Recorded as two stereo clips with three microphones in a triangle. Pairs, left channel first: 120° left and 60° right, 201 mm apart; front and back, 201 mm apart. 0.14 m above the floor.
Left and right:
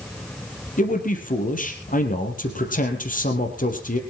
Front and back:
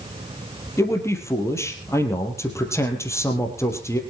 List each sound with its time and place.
0.8 s a man speaking: 75° left, 3.5 m